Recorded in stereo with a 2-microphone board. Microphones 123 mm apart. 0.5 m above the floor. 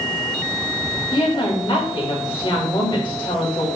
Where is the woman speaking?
40° left (ahead or behind), 2.5 m.